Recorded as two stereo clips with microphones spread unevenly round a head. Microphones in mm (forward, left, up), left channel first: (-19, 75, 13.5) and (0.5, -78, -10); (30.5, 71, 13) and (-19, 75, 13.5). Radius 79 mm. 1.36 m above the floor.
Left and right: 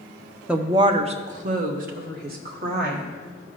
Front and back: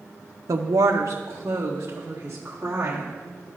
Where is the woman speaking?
165° right, 0.5 m; by 3.1 s 105° right, 2 m.